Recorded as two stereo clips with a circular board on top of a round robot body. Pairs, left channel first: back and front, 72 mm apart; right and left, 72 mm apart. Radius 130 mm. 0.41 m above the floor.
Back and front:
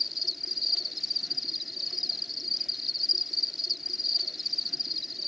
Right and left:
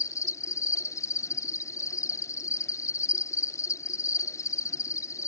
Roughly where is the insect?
Right.